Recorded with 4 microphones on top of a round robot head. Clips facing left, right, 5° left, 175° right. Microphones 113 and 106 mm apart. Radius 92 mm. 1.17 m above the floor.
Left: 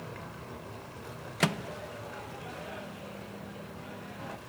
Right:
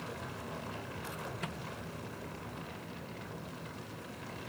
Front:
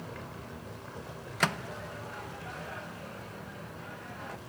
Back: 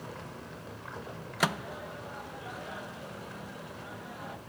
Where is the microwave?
105° left.